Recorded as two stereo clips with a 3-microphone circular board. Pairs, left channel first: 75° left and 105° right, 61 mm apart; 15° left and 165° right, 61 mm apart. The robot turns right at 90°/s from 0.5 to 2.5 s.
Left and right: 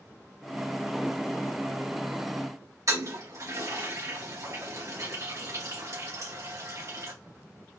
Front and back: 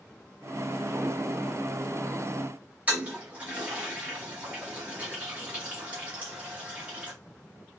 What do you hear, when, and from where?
2.9 s a toilet flushing: 105° right, 2.0 m